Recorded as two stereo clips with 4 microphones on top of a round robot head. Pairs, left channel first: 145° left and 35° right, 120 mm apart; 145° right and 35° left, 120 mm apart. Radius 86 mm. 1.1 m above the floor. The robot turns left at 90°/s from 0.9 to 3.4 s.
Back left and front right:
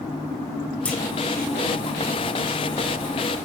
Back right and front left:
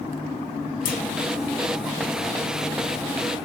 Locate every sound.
0.8 s a clunk: 140° right, 1.5 m; by 1.0 s 150° right, 1.5 m